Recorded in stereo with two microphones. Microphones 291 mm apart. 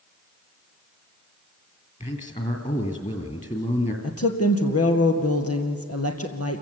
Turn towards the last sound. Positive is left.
turn(degrees=55)  # may be behind; listen again after turning